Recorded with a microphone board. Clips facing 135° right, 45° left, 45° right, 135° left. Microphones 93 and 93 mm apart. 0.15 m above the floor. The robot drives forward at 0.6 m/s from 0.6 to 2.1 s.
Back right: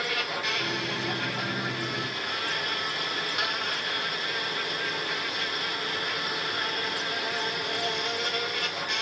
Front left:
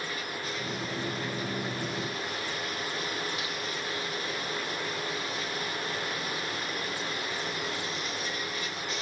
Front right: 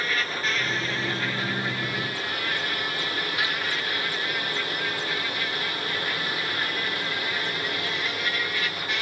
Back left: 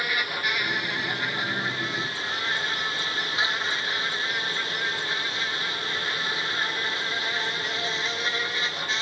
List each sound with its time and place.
0.0 s an insect: 150° right; by 9.0 s 160° right